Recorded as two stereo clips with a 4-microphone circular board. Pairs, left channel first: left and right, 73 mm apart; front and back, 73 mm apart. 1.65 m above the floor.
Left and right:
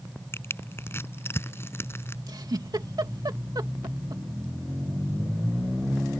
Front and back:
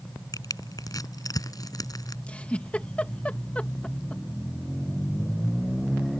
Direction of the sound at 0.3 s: 35° left.